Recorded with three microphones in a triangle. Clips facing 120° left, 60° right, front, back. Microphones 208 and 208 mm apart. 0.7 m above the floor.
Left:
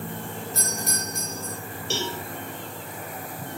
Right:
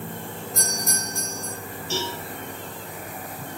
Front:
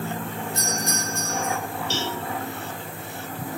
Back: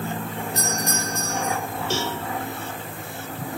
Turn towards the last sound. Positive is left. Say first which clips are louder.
# even, back 4 dB
turn(degrees=140)